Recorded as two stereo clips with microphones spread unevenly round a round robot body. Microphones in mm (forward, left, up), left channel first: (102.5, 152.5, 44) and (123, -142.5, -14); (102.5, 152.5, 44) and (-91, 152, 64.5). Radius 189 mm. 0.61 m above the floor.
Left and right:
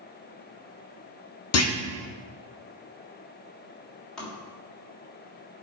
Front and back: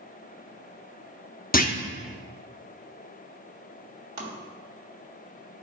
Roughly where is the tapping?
Behind.